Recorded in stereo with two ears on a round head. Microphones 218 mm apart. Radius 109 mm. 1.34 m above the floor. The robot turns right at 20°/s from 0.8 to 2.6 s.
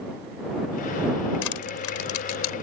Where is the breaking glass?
I don't hear breaking glass.